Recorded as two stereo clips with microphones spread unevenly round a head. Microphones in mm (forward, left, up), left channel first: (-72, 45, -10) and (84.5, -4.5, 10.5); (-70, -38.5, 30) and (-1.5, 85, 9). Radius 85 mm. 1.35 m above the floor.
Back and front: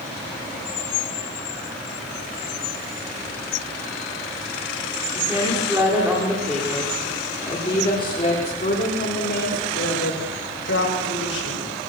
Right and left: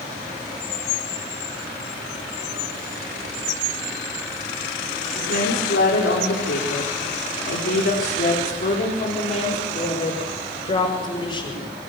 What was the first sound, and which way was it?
A woman speaking, 90° right.